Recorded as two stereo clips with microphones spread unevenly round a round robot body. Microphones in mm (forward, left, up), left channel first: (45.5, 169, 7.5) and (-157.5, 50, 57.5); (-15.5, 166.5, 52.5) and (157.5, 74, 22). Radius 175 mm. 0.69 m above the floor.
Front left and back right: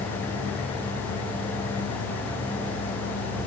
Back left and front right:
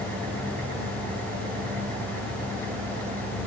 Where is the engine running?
10° left, 9.5 m.